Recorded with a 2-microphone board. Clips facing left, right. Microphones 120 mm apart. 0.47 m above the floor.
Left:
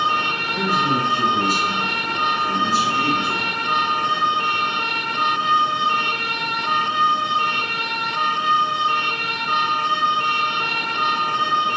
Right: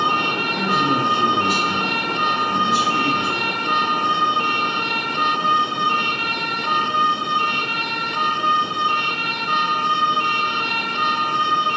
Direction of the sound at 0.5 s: 40° left (ahead or behind).